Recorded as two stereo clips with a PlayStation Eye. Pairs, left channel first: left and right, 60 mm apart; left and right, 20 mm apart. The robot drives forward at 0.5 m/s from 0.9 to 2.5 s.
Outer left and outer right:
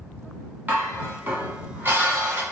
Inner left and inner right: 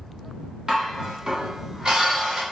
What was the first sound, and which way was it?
Dishes clattering, 30° right (ahead or behind).